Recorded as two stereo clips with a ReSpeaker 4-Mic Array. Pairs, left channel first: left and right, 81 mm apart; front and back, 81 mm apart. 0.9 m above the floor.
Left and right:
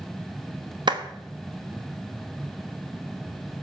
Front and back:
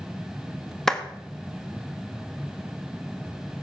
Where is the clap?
85° right, 1.2 m.